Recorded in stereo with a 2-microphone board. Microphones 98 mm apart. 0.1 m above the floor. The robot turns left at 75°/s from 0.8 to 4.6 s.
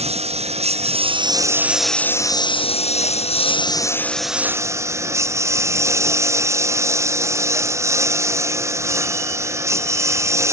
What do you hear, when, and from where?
0.0 s a lawn mower: 100° right; by 10.5 s 25° right